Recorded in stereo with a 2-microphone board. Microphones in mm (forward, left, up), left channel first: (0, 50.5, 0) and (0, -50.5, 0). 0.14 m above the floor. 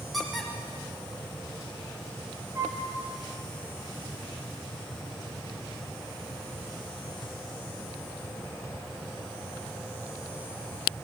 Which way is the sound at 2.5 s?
30° right (ahead or behind).